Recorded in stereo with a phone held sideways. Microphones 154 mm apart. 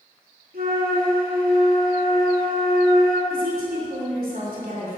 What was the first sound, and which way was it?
A flute, 85° right.